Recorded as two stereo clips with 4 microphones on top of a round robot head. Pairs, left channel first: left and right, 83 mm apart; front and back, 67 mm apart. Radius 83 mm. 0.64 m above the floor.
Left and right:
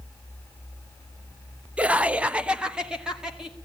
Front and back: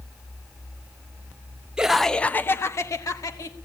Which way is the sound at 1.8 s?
135° right.